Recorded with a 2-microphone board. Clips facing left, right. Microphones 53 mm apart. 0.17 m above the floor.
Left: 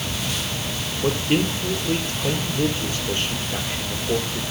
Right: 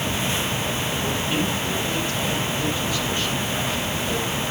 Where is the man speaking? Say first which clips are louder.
Left 6 dB; 45° left (ahead or behind), 5 m.